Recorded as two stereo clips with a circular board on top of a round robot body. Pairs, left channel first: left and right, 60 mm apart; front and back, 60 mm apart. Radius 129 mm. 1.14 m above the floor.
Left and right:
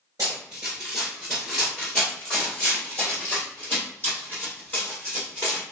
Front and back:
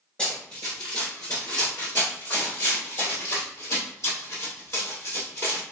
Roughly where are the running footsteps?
Ahead right.